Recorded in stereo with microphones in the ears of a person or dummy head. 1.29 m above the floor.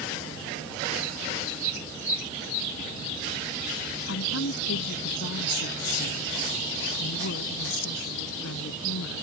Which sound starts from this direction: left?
A woman speaking, at 4.1 s.